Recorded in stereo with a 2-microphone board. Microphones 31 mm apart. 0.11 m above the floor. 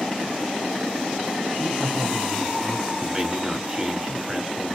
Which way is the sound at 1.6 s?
10° right (ahead or behind).